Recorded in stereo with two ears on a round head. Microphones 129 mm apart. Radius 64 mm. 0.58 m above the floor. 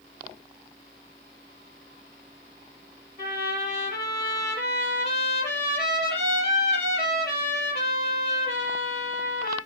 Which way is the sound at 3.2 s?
80° left.